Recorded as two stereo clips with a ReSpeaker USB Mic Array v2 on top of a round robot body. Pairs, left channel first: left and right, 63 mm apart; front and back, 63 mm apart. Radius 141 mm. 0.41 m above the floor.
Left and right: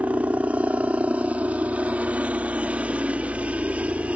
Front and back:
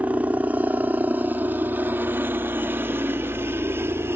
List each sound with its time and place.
0.0 s a helicopter: 135° right; by 4.2 s 150° right